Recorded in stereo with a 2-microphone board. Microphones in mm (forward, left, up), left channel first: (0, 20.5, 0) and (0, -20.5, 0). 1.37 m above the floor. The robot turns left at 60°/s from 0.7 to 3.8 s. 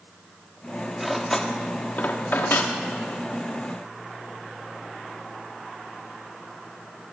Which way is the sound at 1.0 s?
5° right (ahead or behind).